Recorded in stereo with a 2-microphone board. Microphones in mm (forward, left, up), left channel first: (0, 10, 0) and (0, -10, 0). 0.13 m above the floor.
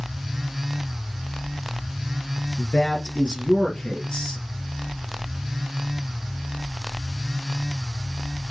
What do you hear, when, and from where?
2.6 s a man speaking: 45° left (ahead or behind), 3 m